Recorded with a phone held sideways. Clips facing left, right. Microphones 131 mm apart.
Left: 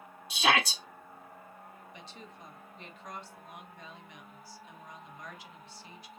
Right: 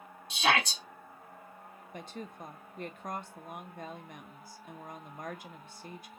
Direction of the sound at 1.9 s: 50° right (ahead or behind).